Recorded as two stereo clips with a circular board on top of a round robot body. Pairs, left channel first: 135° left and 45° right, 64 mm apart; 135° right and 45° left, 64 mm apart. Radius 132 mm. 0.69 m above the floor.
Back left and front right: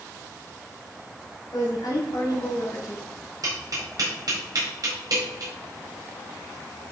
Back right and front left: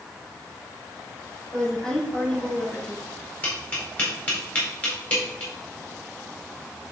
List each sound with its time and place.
1.5 s a woman speaking: 140° left, 3 m
3.4 s tapping: 70° right, 4 m